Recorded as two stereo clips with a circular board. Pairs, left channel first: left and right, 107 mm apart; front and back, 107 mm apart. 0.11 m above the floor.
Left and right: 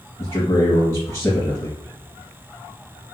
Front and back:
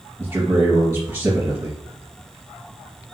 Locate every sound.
0.2 s a man speaking: 125° left, 1.7 m